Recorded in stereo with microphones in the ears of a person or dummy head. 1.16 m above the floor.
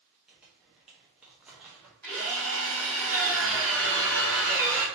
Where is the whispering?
I don't hear whispering.